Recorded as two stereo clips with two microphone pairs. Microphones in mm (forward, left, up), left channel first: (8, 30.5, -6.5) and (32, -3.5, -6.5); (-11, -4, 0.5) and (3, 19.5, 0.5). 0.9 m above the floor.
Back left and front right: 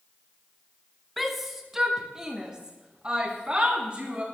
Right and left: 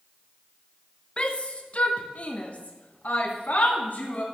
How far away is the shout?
About 1.2 m.